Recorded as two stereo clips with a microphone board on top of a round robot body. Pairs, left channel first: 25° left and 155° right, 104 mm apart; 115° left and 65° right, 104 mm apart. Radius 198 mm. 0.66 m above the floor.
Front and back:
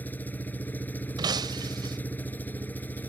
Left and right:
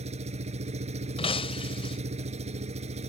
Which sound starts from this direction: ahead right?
An engine running, at 0.0 s.